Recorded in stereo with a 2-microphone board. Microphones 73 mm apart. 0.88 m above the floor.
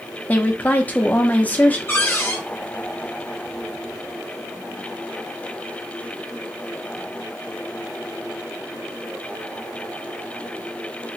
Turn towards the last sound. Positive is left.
turn(degrees=25)  # may be behind; listen again after turning